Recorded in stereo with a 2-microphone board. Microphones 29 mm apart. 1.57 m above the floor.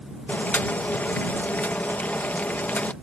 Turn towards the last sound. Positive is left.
turn(degrees=70)  # may be behind; listen again after turning